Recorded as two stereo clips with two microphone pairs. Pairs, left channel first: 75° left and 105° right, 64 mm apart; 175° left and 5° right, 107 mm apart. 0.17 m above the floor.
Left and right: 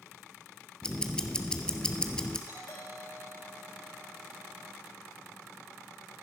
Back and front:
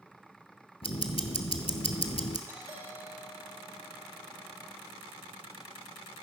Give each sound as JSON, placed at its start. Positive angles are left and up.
{"t": 0.8, "sound": "ticking", "azimuth_deg": 155, "distance_m": 1.1}
{"t": 2.5, "sound": "a doorbell", "azimuth_deg": 55, "distance_m": 6.0}